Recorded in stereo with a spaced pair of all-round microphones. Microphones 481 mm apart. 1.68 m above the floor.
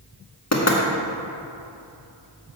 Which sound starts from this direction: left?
Knocking, at 0.5 s.